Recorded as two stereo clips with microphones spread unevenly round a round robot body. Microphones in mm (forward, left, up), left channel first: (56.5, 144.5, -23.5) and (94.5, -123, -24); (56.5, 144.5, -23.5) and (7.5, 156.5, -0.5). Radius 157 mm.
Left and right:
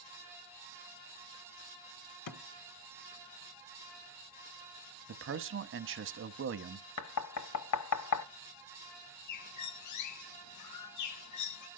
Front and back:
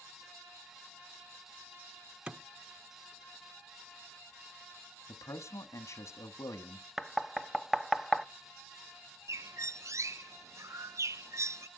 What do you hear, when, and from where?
2.3 s a thud: 100° left, 1.4 m
5.1 s a man speaking: 35° right, 1.1 m
7.0 s knocking: 75° left, 1.0 m
9.3 s a bird: 125° left, 0.6 m